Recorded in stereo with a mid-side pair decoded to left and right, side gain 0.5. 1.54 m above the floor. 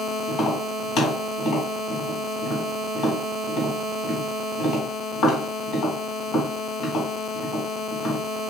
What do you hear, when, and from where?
0.3 s tapping: 65° left, 1.9 m